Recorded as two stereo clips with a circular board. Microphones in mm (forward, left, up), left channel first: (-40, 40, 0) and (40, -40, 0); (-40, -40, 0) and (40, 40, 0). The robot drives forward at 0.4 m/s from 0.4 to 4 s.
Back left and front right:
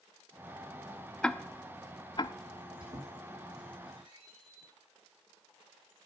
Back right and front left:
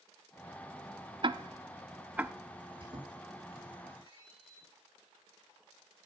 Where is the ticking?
55° left, 0.6 m; by 2.3 s 120° left, 0.6 m.